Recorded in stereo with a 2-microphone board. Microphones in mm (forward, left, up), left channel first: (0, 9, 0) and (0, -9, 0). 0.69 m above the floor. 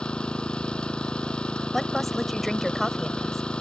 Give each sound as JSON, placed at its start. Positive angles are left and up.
{"t": 0.0, "sound": "an engine running", "side_deg": 80}
{"t": 1.7, "sound": "a woman speaking", "side_deg": 15}